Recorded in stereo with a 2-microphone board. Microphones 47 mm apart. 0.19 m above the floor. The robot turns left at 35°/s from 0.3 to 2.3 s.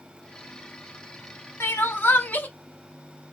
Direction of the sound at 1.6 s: 55° left (ahead or behind).